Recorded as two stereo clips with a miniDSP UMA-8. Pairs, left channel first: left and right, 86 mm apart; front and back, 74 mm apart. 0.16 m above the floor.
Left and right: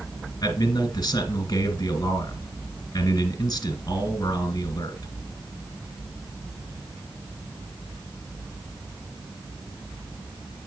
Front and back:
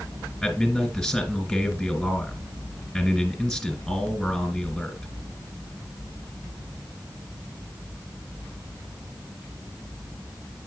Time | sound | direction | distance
0.4 | a man speaking | 80° left | 1.7 m